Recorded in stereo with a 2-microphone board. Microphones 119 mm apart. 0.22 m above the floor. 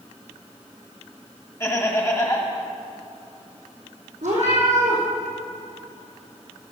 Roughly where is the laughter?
Left.